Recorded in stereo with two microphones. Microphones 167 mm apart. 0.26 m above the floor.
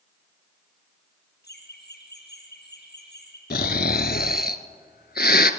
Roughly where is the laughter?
Left.